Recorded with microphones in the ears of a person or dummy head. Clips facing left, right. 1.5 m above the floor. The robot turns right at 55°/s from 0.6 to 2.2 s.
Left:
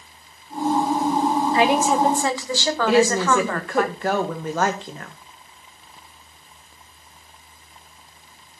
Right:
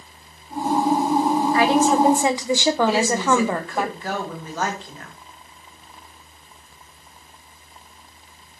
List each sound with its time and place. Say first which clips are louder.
1.5 s a woman speaking: right 2 dB; 155° left, 1.1 m; by 3.9 s 165° right, 1.1 m
2.9 s a woman speaking: left 2 dB; 50° left (ahead or behind), 1.9 m